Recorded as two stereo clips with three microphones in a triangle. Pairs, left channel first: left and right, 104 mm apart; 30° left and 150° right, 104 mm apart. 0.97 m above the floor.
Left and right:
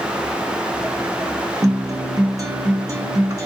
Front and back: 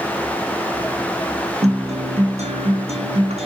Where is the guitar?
150° right, 0.8 m.